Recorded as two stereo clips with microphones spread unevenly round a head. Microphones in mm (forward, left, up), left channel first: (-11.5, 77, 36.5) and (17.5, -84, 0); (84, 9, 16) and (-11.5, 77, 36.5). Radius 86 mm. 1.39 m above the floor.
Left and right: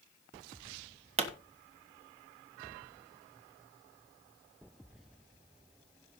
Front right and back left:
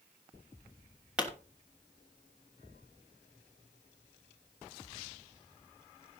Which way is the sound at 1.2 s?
130° right.